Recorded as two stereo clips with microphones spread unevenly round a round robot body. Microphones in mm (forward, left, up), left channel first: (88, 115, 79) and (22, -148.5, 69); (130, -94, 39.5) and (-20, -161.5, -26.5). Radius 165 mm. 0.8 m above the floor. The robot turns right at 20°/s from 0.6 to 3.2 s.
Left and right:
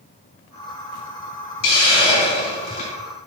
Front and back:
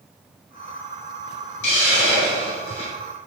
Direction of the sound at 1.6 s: 55° left.